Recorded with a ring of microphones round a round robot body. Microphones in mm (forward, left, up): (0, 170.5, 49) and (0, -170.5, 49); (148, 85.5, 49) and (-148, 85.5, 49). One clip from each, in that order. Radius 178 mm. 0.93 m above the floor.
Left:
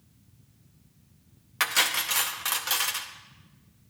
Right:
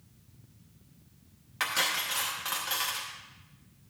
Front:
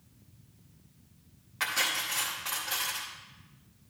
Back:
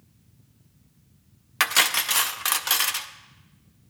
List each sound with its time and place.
1.6 s cutlery clinking: 160° left, 0.6 m